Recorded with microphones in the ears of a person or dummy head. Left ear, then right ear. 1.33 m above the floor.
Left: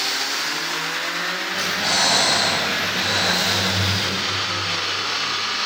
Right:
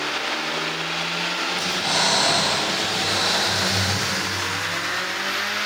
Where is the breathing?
5° left (ahead or behind), 2.0 m.